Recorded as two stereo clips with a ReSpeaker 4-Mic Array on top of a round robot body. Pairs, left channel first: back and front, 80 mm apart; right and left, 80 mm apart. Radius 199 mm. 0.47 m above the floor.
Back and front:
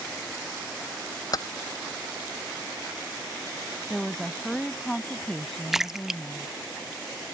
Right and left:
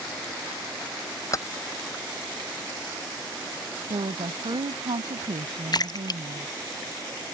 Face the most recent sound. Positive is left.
turn(degrees=-85)